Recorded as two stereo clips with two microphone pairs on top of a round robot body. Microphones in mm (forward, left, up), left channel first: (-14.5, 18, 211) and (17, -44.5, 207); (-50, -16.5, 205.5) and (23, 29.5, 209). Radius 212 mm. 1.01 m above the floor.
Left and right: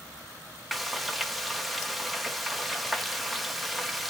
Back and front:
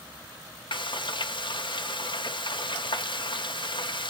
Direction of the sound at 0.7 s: 150° right.